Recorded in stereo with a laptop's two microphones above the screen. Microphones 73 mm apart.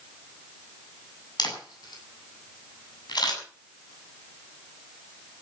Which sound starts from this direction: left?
A camera shutter, at 1.4 s.